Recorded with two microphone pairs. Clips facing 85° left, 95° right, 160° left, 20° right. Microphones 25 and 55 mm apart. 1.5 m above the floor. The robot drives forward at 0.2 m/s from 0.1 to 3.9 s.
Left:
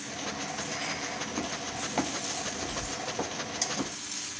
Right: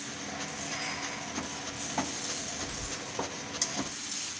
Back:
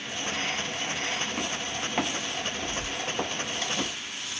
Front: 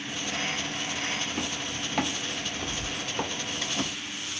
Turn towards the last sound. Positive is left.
turn(degrees=-145)